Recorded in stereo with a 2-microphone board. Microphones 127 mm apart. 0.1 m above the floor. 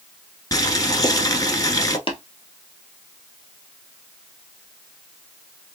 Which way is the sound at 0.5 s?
30° left (ahead or behind).